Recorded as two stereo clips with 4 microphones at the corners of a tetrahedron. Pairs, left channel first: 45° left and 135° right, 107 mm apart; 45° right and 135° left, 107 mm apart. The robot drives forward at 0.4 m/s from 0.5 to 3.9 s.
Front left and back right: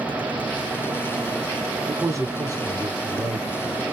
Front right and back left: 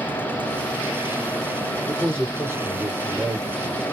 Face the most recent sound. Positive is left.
turn(degrees=-175)